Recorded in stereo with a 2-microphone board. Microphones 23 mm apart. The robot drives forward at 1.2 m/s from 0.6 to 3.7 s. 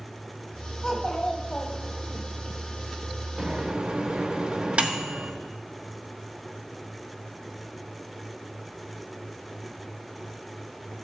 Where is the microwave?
40° right (ahead or behind), 1.5 m; by 5.3 s 50° right (ahead or behind), 1.3 m.